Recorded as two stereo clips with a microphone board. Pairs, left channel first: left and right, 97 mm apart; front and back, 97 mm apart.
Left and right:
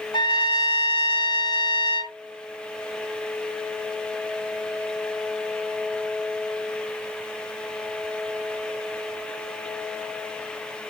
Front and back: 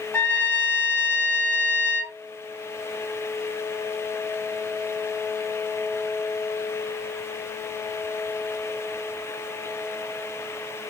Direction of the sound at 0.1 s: 65° left.